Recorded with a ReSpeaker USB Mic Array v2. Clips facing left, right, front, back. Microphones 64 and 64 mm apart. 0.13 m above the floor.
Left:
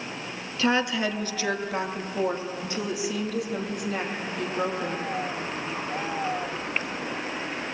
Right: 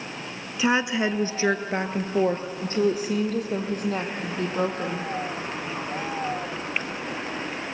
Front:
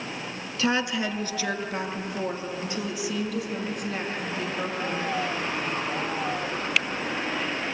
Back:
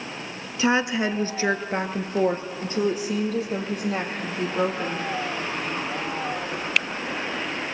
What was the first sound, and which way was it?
A woman speaking, 145° right.